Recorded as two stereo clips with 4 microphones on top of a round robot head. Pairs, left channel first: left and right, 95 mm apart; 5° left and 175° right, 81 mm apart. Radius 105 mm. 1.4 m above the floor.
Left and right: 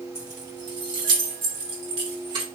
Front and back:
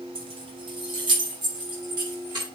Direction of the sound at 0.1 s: 160° right.